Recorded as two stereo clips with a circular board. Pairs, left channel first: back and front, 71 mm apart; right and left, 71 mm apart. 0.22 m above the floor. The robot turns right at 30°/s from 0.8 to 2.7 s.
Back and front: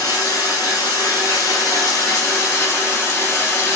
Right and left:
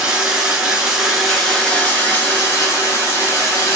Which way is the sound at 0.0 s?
170° left.